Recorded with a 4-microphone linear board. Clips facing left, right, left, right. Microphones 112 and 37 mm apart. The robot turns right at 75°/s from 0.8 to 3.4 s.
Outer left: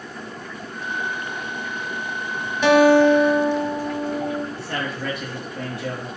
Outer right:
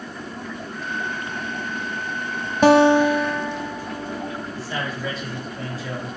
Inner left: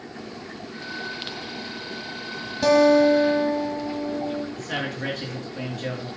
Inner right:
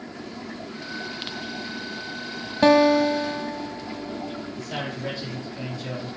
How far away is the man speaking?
About 4 m.